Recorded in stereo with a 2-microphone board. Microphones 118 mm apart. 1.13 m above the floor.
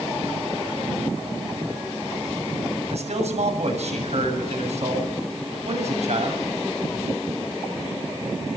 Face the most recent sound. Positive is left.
turn(degrees=-70)  # may be behind; listen again after turning